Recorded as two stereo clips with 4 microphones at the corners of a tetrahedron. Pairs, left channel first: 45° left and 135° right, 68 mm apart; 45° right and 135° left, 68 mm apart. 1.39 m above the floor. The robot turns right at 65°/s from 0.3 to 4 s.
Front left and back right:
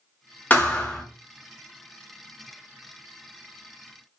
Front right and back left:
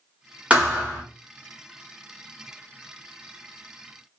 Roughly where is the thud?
Left.